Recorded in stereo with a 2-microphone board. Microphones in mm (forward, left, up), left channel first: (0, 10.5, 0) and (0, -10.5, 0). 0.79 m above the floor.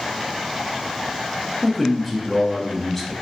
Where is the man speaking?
Centre (ahead or behind), 0.6 m.